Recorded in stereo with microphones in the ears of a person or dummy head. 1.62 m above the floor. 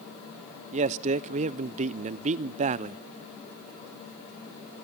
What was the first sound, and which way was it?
A man speaking, 40° right (ahead or behind).